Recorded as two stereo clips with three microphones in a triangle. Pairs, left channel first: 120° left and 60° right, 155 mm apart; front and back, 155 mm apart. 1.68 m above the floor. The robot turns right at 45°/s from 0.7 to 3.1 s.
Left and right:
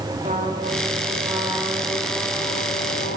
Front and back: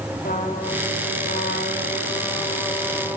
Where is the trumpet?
25° right, 3 m; by 3.2 s 80° left, 3 m.